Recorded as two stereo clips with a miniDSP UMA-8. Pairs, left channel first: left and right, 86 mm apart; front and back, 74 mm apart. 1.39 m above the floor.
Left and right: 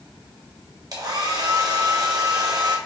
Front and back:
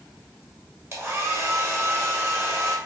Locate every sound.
0.9 s a hair dryer: 130° right, 1.1 m